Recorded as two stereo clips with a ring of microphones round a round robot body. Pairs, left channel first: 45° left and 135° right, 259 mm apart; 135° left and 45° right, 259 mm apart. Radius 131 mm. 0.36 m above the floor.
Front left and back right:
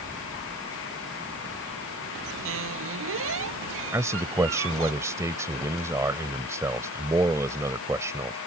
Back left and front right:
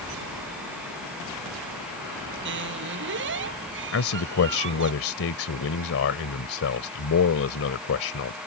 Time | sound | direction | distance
2.5 | a squeak | 95° right | ?
3.9 | a man speaking | 150° left | ?